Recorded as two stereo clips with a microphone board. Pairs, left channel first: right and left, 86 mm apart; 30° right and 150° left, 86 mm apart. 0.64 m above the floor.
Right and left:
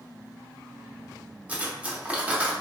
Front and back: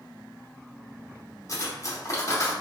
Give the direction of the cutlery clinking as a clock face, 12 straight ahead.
11 o'clock.